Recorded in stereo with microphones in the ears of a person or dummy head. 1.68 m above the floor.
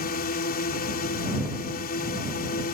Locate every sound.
0.0 s a drone: 45° left (ahead or behind)